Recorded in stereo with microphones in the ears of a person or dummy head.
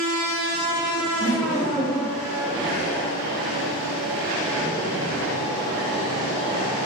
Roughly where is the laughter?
Left.